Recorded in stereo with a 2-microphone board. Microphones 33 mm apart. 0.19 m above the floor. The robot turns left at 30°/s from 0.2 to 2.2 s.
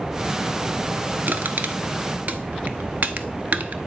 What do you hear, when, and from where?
1.3 s crushing: 75° right (ahead or behind), 0.7 m; by 3.8 s 60° right (ahead or behind), 0.7 m